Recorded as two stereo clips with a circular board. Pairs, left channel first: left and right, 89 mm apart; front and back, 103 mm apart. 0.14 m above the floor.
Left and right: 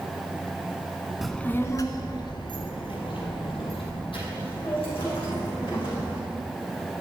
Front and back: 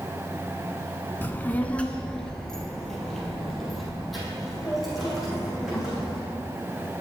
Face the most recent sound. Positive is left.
turn(degrees=90)